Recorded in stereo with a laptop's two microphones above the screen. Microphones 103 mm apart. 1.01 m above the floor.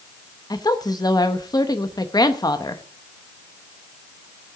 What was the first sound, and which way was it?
A woman speaking, 35° left (ahead or behind).